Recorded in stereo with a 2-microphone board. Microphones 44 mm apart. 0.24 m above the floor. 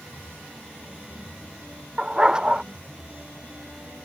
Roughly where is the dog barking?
Right.